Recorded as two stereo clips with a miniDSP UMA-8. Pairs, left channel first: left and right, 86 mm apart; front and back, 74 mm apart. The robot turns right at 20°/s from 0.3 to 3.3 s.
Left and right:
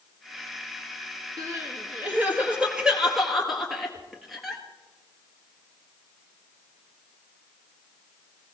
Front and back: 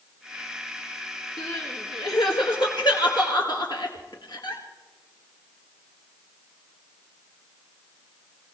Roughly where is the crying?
Ahead right.